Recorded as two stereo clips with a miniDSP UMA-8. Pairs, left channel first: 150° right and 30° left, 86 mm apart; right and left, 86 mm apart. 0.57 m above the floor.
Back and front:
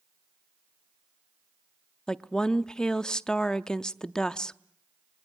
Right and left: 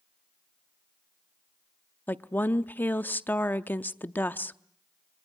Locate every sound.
2.1 s a woman speaking: 85° right, 0.6 m